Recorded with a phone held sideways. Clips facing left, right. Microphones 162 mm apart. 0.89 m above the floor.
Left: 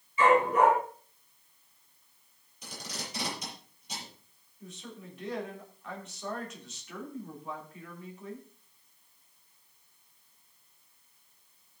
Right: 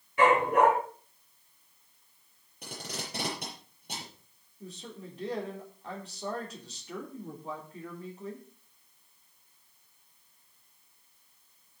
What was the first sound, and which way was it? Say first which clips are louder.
A dog barking: even; 60° right (ahead or behind).